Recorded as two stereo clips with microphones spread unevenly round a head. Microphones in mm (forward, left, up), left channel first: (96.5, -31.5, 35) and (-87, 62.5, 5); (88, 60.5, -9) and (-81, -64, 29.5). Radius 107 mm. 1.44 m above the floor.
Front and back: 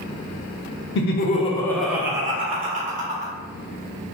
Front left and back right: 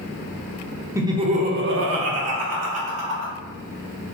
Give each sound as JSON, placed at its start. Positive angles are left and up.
{"t": 0.9, "sound": "laughter", "azimuth_deg": -65, "distance_m": 0.6}